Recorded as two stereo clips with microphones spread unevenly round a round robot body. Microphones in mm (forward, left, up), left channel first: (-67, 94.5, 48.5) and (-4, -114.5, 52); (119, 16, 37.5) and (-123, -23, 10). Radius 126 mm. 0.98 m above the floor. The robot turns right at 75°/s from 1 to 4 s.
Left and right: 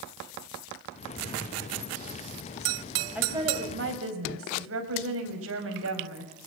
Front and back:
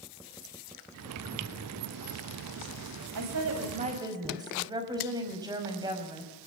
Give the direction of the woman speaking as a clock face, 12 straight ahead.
5 o'clock.